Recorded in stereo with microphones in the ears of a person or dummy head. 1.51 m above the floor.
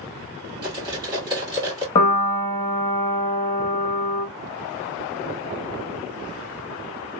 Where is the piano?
20° left (ahead or behind), 0.9 m.